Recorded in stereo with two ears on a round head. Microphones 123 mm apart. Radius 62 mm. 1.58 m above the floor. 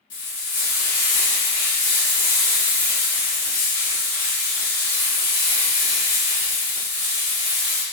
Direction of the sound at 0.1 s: 65° left (ahead or behind).